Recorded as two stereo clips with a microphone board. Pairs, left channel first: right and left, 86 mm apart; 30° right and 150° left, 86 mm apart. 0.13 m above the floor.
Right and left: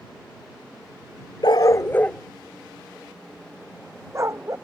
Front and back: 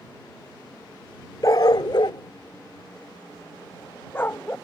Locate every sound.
1.4 s a dog barking: 70° right; by 4.5 s 40° left